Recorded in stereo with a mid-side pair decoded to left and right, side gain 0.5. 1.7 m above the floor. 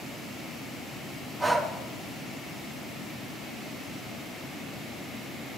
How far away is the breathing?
About 2.5 m.